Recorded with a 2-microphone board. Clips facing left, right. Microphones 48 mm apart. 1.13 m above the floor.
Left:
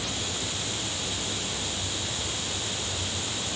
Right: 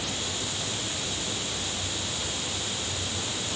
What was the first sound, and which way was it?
Only background noise.